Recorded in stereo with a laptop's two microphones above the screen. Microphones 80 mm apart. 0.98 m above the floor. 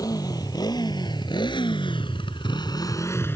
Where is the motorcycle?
50° left (ahead or behind); by 3.4 s 25° left (ahead or behind).